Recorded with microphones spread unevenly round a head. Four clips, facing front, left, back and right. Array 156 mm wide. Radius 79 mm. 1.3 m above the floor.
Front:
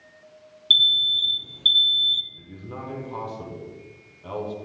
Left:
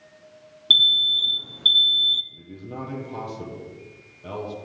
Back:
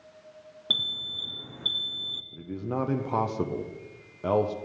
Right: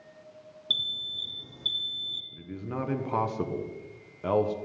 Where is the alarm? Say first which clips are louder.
Left 16 dB, front 9 dB; 140° left, 0.6 m.